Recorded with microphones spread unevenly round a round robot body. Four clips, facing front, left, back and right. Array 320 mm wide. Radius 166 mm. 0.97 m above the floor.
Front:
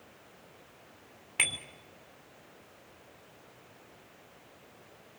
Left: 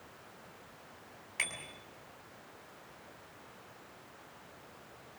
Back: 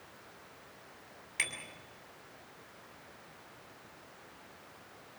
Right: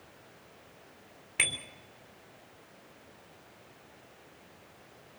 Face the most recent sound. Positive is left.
turn(degrees=-60)